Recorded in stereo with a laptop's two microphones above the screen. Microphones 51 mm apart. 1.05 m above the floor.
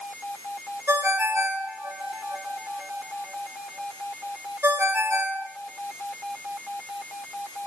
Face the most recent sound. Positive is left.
turn(degrees=-60)  # may be behind; listen again after turning